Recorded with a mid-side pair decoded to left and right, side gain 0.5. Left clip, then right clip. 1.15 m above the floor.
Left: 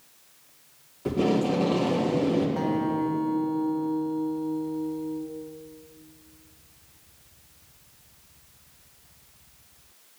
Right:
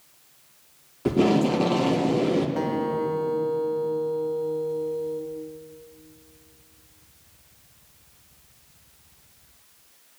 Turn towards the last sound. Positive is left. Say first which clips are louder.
# right 1 dB
turn(degrees=-25)